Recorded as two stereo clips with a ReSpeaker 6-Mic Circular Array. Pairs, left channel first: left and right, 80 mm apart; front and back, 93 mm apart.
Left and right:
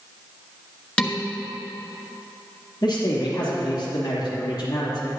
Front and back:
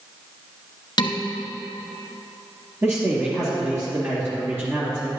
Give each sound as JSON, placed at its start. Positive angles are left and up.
{"t": 1.0, "sound": "dishes clattering", "azimuth_deg": 15, "distance_m": 1.2}
{"t": 2.8, "sound": "a man speaking", "azimuth_deg": 120, "distance_m": 2.5}